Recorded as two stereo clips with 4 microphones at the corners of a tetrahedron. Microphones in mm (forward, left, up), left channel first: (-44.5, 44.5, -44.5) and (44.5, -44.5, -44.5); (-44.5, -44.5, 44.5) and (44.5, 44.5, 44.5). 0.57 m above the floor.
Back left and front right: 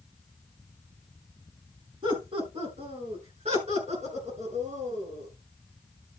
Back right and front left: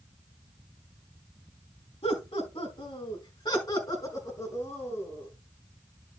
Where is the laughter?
95° right, 4.5 m; by 5.3 s 65° right, 6.5 m.